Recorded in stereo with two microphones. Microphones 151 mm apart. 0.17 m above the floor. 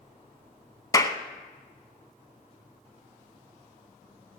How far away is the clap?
About 0.9 m.